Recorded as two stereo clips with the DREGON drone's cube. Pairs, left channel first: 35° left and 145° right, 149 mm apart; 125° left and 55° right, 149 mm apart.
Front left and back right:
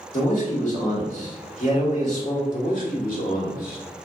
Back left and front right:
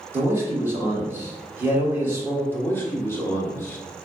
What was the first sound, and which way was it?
A man speaking, 15° left.